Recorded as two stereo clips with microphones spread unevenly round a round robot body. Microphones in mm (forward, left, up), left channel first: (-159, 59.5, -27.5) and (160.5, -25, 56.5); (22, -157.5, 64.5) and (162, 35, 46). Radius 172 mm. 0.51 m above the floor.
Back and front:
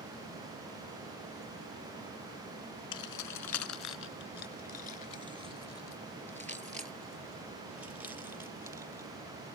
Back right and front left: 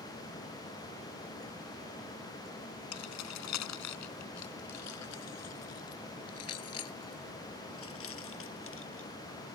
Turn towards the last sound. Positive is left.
turn(degrees=-95)